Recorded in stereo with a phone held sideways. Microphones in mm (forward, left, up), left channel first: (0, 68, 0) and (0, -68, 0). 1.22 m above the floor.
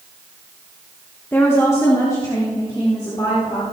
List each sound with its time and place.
1.3 s a woman speaking: 15° left (ahead or behind), 1.1 m; by 3.6 s 30° left (ahead or behind), 4 m